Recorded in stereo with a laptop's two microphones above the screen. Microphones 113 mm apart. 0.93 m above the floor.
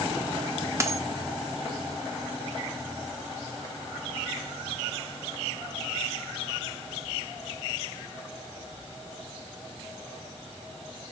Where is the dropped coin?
25° right (ahead or behind), 0.9 m.